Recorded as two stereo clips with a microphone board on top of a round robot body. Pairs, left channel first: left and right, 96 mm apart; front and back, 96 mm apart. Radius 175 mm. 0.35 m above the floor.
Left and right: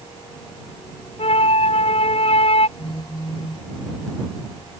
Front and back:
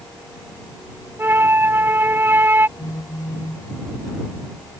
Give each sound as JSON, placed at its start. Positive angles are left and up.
{"t": 1.2, "sound": "a flute", "azimuth_deg": 110}
{"t": 2.8, "sound": "a phone buzzing", "azimuth_deg": 55}